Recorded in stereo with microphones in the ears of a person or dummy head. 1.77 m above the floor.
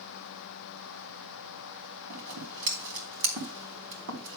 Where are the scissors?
65° right (ahead or behind), 3.5 m.